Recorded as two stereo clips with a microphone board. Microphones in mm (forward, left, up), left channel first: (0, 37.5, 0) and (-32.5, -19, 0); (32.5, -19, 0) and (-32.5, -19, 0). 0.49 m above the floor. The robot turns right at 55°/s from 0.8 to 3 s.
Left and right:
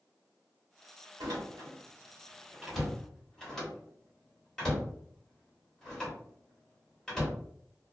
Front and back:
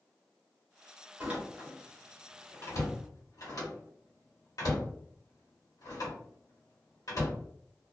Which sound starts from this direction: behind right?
A door slam, at 1.2 s.